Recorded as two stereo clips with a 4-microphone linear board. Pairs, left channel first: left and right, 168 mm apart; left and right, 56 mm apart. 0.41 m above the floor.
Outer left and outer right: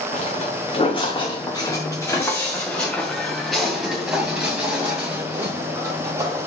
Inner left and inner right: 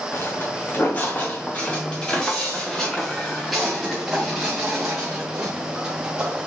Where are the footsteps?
45° left (ahead or behind), 2 m; by 6.5 s 20° right (ahead or behind), 4 m.